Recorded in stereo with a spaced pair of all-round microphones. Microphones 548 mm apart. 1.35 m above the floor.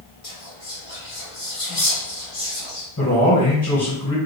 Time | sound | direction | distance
0.2 | whispering | 75° left (ahead or behind) | 1.7 m
3.0 | a man speaking | 25° left (ahead or behind) | 2 m